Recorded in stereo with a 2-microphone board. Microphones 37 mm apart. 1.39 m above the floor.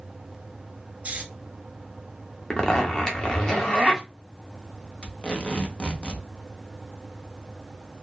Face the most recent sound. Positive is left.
turn(degrees=30)  # may be behind; listen again after turning